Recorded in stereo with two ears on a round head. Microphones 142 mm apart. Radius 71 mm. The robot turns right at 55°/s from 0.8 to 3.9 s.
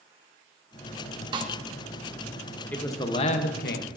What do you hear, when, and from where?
1.3 s a snare drum: 25° right (ahead or behind), 1.0 m; by 1.5 s 40° right (ahead or behind), 1.0 m
2.7 s a man speaking: 10° left, 0.9 m; by 4.0 s 75° left, 0.9 m